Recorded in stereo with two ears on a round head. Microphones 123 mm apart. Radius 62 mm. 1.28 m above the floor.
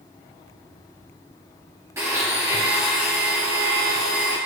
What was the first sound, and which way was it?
A blender, 20° right (ahead or behind).